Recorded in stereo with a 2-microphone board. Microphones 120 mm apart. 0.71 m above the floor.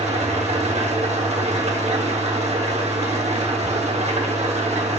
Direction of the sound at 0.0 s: 65° right (ahead or behind).